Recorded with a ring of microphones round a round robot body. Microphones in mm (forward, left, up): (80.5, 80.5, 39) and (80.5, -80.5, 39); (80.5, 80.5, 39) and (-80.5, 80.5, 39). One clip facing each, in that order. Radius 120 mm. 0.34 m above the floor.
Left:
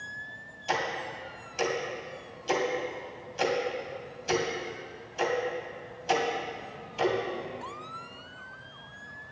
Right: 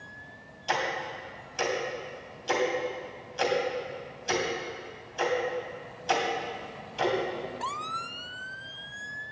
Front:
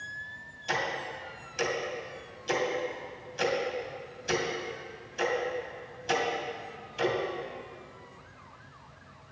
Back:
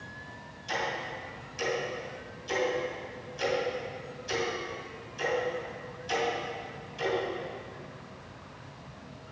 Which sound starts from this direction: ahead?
Ticking, at 0.7 s.